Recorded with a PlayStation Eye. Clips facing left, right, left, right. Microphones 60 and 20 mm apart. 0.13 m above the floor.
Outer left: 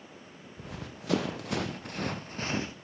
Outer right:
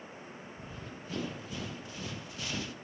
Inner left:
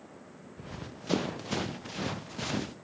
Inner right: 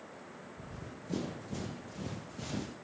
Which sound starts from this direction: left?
Running footsteps, at 0.6 s.